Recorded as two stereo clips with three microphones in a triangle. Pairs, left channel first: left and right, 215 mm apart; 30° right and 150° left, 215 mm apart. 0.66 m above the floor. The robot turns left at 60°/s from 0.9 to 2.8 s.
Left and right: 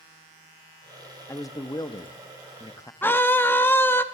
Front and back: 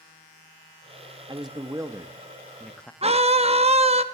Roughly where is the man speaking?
Behind left.